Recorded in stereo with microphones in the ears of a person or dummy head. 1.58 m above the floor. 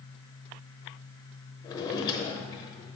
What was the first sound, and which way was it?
A drawer, 20° left (ahead or behind).